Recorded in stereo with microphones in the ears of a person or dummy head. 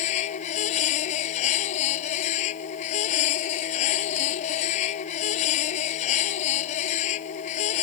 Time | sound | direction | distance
0.0 | a machine running | 45° left (ahead or behind) | ?